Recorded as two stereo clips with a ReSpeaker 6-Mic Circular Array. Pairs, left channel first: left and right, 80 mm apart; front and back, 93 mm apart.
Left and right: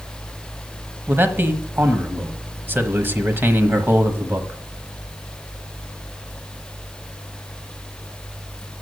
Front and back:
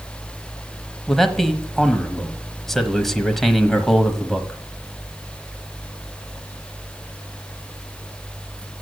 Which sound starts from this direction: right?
A man speaking, at 1.1 s.